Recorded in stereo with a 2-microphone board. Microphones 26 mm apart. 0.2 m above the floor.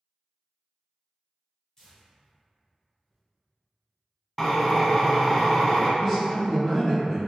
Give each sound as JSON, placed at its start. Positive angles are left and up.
{"t": 1.8, "sound": "tearing paper", "side_deg": 25, "distance_m": 1.5}
{"t": 4.4, "sound": "a drill", "side_deg": 15, "distance_m": 0.7}
{"t": 6.0, "sound": "a man speaking", "side_deg": 15, "distance_m": 1.7}